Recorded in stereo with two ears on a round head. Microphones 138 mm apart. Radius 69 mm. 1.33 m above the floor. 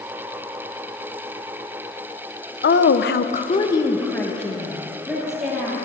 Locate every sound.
2.6 s a woman speaking: 70° left (ahead or behind), 0.9 m; by 5.8 s 5° right (ahead or behind), 3 m